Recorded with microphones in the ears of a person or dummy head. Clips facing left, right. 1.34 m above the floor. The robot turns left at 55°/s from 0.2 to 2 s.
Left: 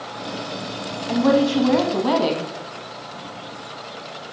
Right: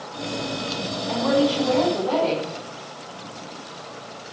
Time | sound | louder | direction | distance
1.1 | a woman speaking | left 3 dB | 140° left | 1.8 m